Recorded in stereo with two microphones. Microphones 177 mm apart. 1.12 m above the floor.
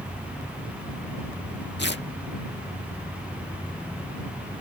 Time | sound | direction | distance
1.8 | tearing paper | 85° left | ?